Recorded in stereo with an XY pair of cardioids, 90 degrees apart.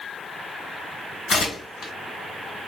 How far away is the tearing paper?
About 1.5 m.